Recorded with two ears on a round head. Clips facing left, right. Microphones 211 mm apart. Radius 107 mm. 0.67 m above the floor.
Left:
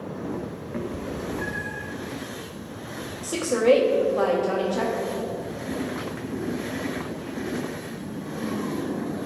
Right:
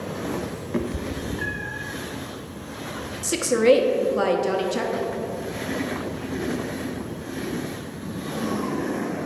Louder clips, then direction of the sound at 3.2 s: Right 2 dB; 30° right (ahead or behind).